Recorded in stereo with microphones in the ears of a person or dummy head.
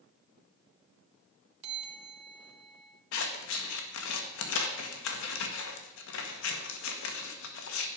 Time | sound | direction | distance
1.6 | a bell | 30° right (ahead or behind) | 1.4 m
3.1 | scissors | 75° left (ahead or behind) | 1.6 m